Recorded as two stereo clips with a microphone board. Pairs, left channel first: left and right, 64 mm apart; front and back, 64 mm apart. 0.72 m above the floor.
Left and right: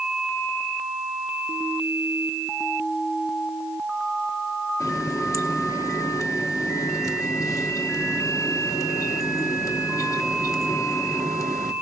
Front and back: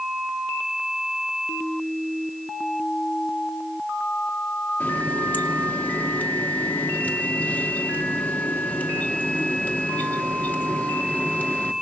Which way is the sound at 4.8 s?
65° left.